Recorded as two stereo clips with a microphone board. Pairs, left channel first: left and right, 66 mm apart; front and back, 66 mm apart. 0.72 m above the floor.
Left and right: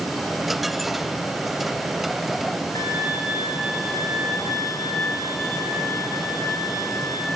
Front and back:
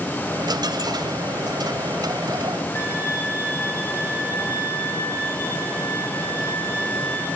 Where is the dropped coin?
Straight behind, 1.1 m.